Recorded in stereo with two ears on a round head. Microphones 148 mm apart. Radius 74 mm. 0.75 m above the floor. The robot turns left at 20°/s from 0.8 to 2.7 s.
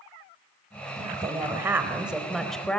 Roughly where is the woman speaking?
Behind right.